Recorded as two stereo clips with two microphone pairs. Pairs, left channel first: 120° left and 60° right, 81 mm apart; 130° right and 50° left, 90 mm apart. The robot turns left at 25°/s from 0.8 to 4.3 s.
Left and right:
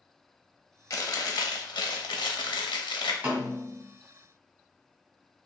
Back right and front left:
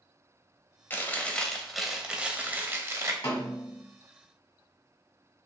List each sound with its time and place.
0.9 s chewing: 160° left, 0.5 m; by 3.1 s 105° left, 0.5 m
3.2 s a snare drum: 125° right, 1.2 m; by 3.8 s 140° right, 1.2 m